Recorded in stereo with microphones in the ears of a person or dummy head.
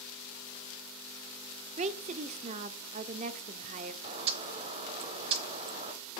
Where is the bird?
35° right (ahead or behind), 0.8 m.